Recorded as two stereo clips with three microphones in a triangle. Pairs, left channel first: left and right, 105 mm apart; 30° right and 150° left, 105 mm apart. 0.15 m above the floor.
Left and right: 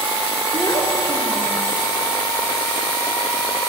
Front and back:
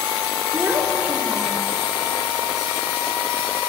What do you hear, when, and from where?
0.5 s a child speaking: 90° left, 1.5 m; by 1.7 s 45° left, 1.1 m